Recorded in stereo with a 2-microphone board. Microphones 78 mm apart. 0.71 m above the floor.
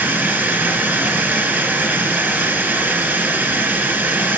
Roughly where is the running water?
Right.